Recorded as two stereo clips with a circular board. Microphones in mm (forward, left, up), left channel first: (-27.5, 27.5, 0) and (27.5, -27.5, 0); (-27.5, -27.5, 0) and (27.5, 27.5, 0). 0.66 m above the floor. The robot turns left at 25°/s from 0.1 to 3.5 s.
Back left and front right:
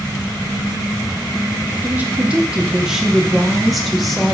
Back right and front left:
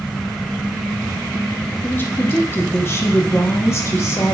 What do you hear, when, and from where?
1.8 s a woman speaking: 95° right, 1.0 m; by 4.3 s 135° right, 1.0 m